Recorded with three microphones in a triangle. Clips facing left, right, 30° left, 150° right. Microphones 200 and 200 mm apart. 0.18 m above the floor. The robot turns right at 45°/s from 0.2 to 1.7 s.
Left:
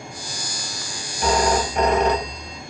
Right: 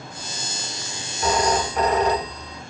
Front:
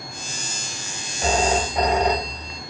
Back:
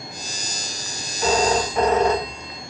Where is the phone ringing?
80° left, 1.8 m; by 2.6 s 100° left, 1.8 m.